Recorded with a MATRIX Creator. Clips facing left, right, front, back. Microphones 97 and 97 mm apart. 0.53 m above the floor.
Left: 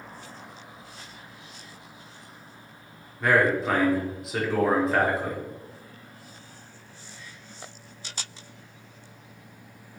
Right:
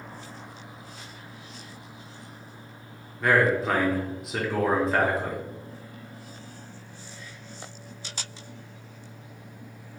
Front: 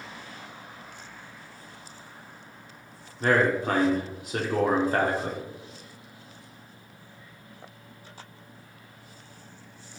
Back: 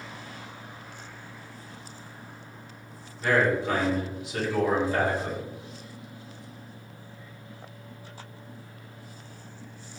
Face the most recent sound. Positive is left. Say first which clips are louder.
# even, front 1 dB
turn(degrees=0)